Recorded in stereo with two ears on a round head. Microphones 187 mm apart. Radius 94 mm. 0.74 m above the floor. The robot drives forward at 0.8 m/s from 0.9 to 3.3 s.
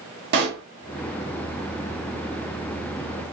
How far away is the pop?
About 1.3 m.